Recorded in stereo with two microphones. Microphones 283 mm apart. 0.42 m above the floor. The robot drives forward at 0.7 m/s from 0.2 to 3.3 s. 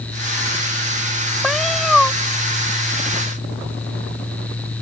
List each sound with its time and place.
1.4 s a cat meowing: centre (ahead or behind)